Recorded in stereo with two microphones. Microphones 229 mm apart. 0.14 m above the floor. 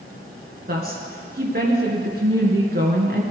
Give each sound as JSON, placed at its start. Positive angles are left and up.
{"t": 0.7, "sound": "a woman speaking", "side_deg": -45, "distance_m": 2.0}